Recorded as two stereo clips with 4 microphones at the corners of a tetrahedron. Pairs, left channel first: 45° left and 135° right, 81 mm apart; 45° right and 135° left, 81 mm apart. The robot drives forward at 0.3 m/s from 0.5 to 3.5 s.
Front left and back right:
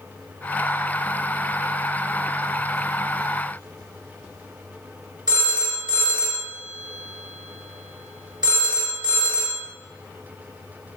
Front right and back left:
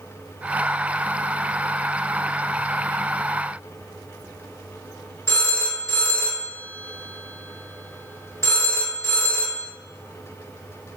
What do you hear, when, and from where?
5.3 s a phone ringing: 105° right, 1.0 m